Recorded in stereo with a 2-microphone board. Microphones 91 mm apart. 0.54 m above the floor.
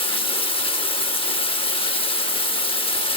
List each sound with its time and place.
0.0 s running water: 70° left (ahead or behind), 0.8 m